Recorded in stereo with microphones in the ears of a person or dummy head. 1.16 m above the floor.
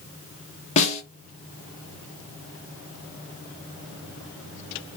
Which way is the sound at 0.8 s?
35° left (ahead or behind).